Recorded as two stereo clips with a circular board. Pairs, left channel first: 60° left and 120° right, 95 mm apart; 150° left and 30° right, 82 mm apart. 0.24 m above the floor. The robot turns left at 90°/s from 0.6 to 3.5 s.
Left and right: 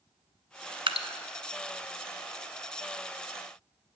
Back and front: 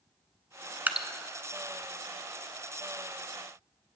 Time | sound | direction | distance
0.9 | dripping | 95° right | 0.5 m